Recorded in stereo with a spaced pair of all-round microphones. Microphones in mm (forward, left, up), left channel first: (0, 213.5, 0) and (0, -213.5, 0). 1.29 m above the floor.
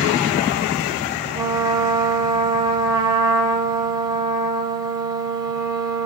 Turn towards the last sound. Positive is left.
turn(degrees=-10)  # may be behind; listen again after turning